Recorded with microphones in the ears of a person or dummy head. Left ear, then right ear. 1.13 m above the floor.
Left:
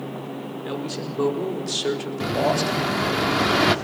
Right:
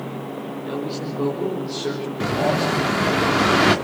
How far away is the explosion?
About 1.3 m.